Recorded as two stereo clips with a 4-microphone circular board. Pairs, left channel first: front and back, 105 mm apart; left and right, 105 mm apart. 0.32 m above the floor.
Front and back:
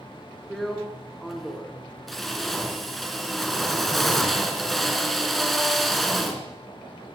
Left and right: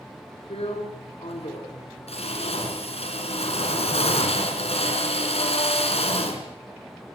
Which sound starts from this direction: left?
A drill, at 0.5 s.